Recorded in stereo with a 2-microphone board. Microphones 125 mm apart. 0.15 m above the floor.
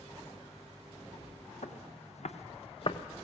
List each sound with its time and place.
1.6 s footsteps: 75° left (ahead or behind), 1.3 m; by 3.0 s 45° left (ahead or behind), 0.8 m